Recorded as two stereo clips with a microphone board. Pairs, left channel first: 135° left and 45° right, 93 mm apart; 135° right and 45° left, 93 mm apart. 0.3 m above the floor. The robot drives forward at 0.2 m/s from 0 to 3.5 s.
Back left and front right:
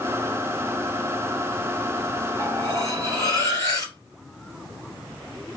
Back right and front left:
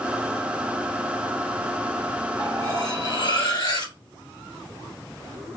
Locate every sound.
2.4 s cutlery clinking: 170° right, 2.5 m